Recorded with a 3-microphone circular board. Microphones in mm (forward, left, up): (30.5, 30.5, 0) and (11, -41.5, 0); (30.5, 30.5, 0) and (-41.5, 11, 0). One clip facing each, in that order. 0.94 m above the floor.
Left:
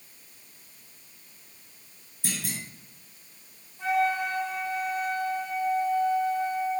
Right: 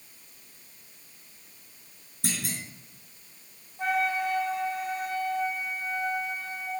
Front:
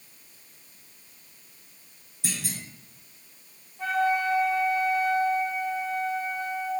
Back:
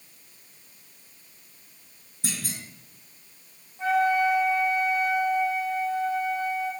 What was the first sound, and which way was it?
A clunk, 120° right.